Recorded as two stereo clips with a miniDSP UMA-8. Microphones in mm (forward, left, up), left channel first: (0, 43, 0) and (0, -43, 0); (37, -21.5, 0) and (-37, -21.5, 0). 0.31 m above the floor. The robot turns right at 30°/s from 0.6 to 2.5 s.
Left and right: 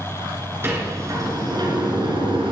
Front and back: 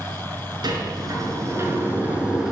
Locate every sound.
0.6 s a sliding door: 155° right, 4.5 m; by 2.5 s 100° right, 4.5 m